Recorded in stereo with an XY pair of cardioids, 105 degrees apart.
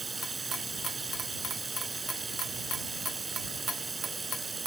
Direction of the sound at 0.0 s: 20° right.